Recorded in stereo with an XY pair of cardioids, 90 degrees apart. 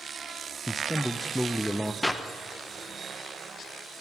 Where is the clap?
10° left, 1.3 m.